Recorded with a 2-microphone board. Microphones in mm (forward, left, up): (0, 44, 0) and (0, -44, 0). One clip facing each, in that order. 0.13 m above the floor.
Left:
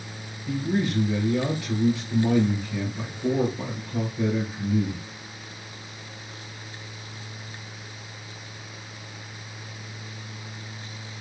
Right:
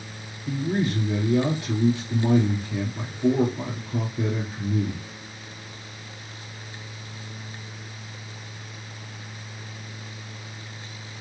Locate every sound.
0.5 s a man speaking: 30° right (ahead or behind), 2.5 m